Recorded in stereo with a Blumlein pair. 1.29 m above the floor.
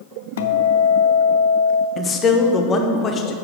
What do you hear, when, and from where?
0.4 s a guitar: 60° left, 0.5 m
2.0 s a man speaking: 20° left, 0.9 m